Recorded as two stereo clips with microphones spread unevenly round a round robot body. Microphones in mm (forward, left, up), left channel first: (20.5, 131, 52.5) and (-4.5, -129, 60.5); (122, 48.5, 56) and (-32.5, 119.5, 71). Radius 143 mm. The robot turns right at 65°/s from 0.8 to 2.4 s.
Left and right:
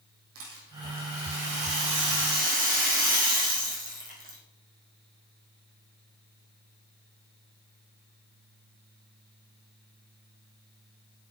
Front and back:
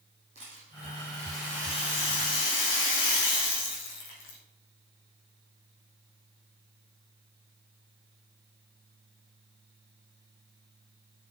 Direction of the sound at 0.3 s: 140° right.